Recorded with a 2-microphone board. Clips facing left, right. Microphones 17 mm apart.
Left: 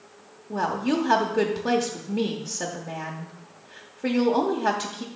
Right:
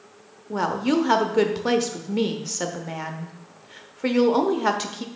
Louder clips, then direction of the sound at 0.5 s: Right 2 dB; 25° right (ahead or behind).